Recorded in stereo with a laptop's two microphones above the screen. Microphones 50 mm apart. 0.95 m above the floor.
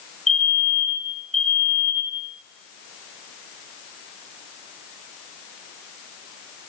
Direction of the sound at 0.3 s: Centre (ahead or behind).